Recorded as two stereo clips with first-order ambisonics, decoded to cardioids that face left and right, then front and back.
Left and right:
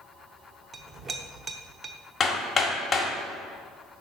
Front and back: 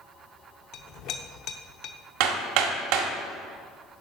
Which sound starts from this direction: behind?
Hammering, at 2.2 s.